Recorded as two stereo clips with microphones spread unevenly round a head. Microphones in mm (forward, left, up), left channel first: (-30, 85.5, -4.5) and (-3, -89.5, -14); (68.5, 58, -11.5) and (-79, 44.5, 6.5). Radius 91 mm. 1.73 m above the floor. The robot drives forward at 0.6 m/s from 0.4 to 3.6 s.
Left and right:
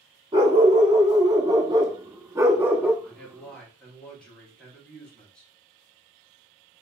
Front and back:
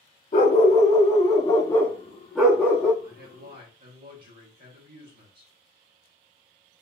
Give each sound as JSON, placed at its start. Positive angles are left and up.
{"t": 0.3, "sound": "a dog barking", "azimuth_deg": -15, "distance_m": 1.6}
{"t": 3.0, "sound": "a man speaking", "azimuth_deg": 180, "distance_m": 1.9}